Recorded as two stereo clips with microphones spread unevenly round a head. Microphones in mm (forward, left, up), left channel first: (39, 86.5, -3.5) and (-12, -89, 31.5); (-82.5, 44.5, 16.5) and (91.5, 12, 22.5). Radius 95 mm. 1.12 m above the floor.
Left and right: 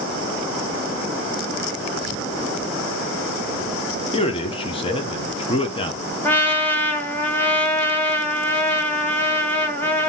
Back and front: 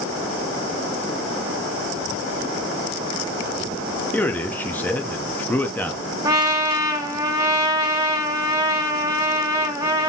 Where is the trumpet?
20° right, 0.9 m.